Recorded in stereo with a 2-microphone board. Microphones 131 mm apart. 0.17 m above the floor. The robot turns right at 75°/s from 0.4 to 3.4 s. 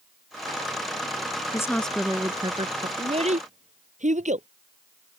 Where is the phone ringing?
No phone ringing in this recording.